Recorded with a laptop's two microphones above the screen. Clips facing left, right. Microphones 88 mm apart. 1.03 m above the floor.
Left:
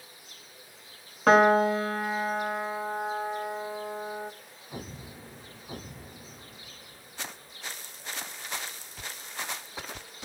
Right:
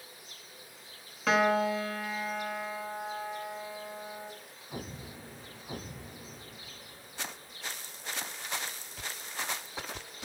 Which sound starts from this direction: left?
A piano, at 1.3 s.